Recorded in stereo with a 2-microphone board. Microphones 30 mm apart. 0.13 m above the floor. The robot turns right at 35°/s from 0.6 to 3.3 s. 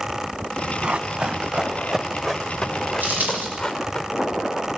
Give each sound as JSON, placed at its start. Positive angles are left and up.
{"t": 0.8, "sound": "running footsteps", "side_deg": -45, "distance_m": 1.9}
{"t": 3.0, "sound": "a dropped coin", "side_deg": -55, "distance_m": 8.0}